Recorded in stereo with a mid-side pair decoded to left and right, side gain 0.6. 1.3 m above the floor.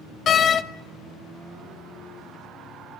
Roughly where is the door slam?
Ahead left.